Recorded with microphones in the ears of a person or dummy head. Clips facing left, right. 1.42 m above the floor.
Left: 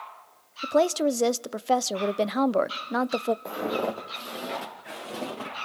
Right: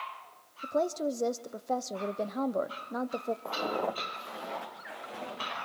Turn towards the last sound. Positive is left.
turn(degrees=60)  # may be behind; listen again after turning